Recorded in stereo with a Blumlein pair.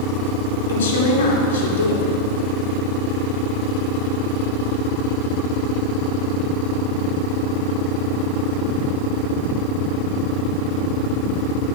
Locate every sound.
0.7 s a woman speaking: 65° left, 3 m